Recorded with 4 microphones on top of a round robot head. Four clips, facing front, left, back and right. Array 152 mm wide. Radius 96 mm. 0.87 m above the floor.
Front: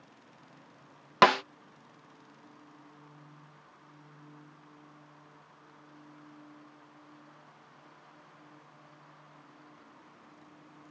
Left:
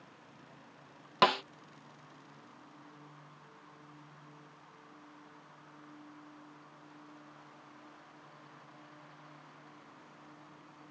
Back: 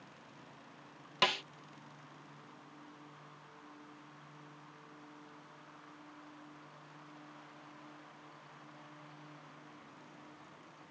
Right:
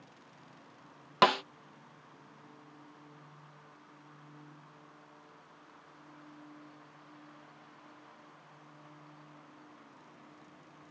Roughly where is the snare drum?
Ahead.